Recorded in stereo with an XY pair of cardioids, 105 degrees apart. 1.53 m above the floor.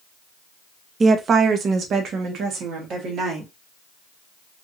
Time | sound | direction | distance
1.0 | a woman speaking | 35° right | 0.7 m